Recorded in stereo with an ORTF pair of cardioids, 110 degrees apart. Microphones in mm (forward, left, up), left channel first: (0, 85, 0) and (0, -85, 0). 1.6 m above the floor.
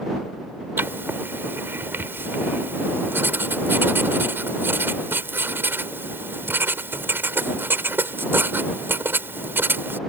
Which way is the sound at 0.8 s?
10° right.